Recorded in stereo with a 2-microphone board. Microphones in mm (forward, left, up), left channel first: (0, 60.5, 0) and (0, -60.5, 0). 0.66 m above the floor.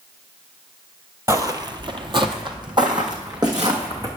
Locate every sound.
1.3 s footsteps: 20° right (ahead or behind), 0.8 m; by 4.1 s 35° right (ahead or behind), 2.5 m